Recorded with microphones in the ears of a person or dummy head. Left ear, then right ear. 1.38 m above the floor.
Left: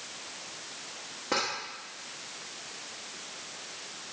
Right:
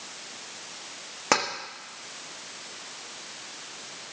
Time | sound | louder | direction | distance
1.3 | tapping | right 6 dB | 50° right (ahead or behind) | 1.5 m